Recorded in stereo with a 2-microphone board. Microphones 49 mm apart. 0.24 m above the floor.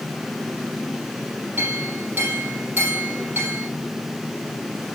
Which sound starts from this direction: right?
A clink, at 1.6 s.